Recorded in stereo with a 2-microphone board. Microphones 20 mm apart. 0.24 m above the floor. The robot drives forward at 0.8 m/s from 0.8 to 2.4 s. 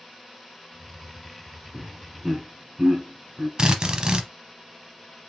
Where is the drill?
40° right (ahead or behind), 0.8 m.